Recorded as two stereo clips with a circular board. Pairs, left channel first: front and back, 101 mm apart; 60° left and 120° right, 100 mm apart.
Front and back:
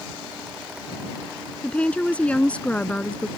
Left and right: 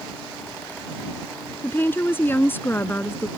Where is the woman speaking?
55° left.